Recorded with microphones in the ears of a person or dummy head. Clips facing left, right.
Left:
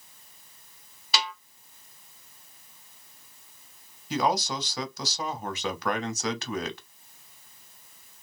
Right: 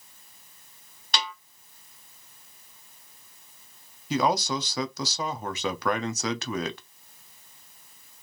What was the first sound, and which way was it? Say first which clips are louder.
A snare drum: left 1 dB; 5° left (ahead or behind).